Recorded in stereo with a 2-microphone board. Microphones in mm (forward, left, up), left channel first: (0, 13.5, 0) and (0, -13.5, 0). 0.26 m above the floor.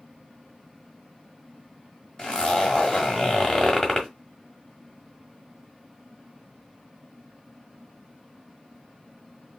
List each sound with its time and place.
2.2 s a zipper: 25° left (ahead or behind), 1.5 m